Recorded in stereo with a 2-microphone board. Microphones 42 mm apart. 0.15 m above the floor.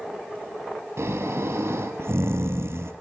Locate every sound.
1.0 s snoring: 75° right (ahead or behind), 1.3 m